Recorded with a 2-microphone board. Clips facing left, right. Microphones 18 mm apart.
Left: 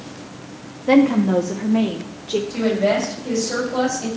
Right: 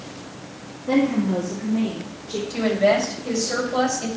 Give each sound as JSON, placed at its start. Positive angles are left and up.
{"t": 0.9, "sound": "a woman speaking", "side_deg": 50, "distance_m": 0.7}
{"t": 2.5, "sound": "a woman speaking", "side_deg": -30, "distance_m": 6.0}